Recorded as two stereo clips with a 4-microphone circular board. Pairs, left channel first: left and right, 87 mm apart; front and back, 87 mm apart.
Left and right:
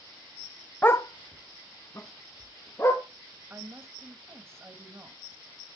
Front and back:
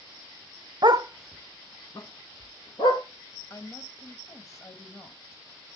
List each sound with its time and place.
0.8 s a dog barking: 155° left, 0.7 m; by 3.0 s 30° left, 3 m
3.5 s a woman speaking: 40° right, 1.5 m